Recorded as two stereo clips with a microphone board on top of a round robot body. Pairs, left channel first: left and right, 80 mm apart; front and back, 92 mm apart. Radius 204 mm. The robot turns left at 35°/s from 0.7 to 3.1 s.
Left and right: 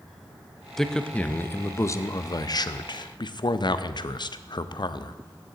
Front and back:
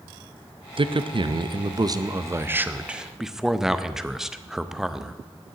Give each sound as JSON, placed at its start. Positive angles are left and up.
{"t": 0.8, "sound": "a man speaking", "azimuth_deg": 175, "distance_m": 0.8}